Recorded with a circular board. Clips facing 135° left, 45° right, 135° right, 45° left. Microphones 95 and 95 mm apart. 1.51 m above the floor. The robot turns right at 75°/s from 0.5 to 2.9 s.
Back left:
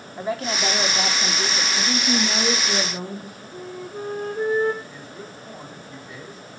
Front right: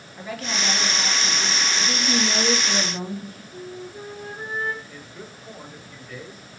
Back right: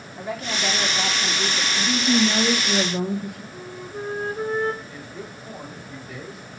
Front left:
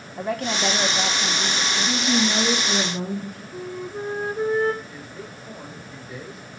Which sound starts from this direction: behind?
A man speaking, at 4.8 s.